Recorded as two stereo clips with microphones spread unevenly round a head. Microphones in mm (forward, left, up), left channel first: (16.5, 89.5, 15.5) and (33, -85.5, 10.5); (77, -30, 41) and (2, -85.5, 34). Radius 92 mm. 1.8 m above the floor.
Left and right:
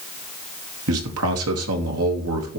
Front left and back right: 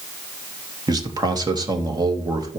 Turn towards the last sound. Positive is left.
turn(degrees=-95)